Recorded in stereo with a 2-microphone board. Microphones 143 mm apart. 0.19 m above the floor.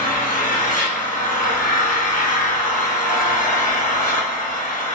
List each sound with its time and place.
0.0 s an engine running: 80° left, 1.4 m